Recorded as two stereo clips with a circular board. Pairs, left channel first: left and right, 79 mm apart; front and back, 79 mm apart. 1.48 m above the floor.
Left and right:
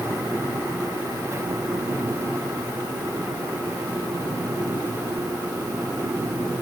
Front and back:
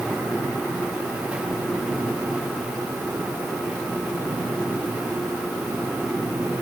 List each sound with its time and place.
Only background noise.